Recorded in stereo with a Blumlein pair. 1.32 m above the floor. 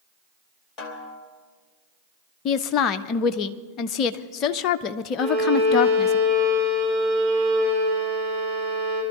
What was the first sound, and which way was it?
A snare drum, 25° left.